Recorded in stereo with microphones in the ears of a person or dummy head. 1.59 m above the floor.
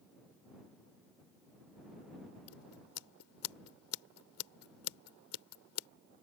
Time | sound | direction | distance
2.5 | scissors | 85° left | ?